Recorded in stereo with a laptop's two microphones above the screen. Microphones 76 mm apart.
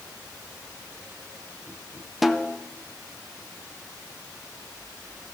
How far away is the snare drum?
About 0.7 m.